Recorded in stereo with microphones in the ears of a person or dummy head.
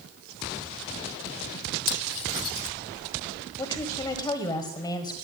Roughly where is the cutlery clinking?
Left.